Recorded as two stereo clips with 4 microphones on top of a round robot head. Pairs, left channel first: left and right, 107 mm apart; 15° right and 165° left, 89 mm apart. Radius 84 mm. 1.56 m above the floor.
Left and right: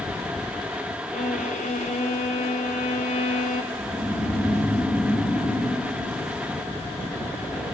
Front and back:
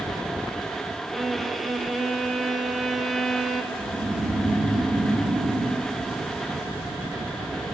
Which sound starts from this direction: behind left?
Snoring, at 3.7 s.